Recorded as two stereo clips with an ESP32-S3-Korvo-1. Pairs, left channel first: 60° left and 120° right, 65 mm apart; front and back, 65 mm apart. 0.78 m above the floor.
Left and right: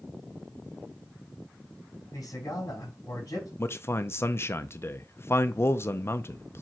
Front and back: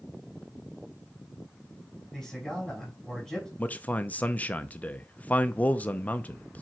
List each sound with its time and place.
2.1 s a man speaking: 90° left, 5 m
3.6 s a man speaking: 50° left, 0.5 m